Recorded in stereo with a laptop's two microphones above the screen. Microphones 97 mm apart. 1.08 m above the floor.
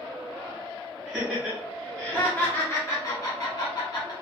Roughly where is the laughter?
Centre.